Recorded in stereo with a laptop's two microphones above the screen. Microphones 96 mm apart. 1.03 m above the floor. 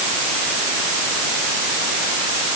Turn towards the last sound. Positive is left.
No sound to turn to.